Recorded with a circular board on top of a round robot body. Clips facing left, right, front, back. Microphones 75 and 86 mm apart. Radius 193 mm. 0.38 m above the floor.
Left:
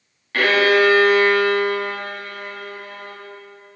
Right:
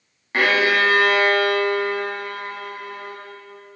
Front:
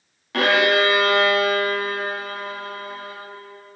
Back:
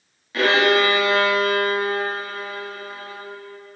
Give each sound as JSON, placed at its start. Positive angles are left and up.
{"t": 0.3, "sound": "a violin", "azimuth_deg": -20, "distance_m": 3.0}